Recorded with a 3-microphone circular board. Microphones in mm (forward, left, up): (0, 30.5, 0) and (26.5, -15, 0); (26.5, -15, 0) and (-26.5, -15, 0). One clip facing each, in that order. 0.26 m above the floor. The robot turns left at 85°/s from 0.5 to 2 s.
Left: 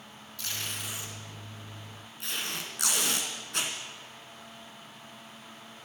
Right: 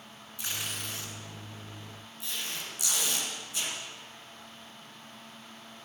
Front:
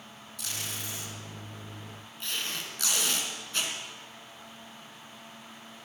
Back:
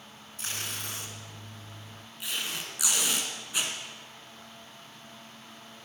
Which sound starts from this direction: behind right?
Tape being pulled, at 0.4 s.